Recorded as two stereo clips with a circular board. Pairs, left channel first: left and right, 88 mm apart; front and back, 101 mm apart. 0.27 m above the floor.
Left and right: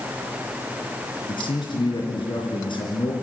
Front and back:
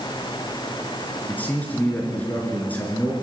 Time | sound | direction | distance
1.3 | a man speaking | 75° left | 4 m